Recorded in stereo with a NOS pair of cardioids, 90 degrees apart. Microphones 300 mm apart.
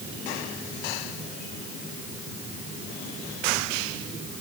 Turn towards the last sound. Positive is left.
No sound to turn to.